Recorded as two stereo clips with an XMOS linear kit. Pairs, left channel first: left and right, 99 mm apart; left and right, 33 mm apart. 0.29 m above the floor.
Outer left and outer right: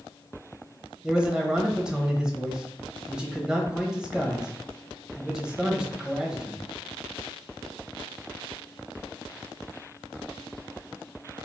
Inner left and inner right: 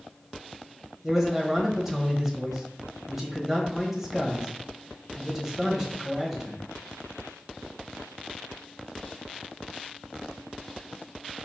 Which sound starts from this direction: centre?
A man speaking, at 1.0 s.